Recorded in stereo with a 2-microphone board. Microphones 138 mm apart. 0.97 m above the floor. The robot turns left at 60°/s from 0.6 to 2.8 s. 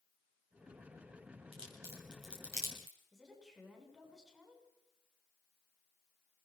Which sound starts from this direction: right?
A crack, at 1.5 s.